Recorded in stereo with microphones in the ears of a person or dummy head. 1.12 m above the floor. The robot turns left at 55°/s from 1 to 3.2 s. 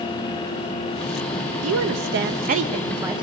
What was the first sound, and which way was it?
A woman speaking, 85° right.